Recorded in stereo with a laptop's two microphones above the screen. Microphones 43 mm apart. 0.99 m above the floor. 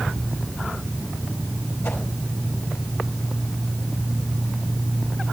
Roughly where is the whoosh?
Left.